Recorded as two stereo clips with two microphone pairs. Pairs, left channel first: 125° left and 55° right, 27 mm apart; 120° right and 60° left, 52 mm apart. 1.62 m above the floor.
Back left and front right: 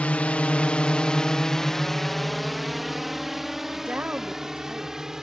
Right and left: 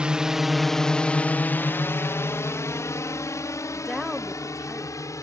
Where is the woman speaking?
35° right.